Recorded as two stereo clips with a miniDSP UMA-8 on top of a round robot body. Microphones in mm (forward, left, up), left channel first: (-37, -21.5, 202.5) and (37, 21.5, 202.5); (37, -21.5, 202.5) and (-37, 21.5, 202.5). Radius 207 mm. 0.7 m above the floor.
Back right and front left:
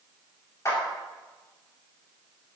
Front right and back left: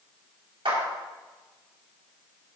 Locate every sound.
0.7 s a clap: 155° left, 5.5 m